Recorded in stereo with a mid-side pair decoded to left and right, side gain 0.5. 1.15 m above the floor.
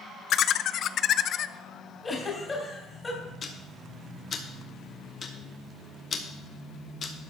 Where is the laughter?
55° left, 0.5 m.